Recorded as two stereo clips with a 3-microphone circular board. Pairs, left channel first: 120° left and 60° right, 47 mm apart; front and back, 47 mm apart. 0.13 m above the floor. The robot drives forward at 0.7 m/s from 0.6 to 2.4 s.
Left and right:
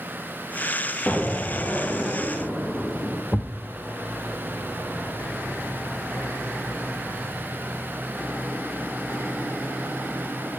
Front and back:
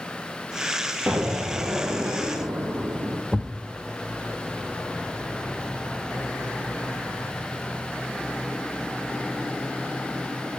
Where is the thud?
90° left, 1.0 m.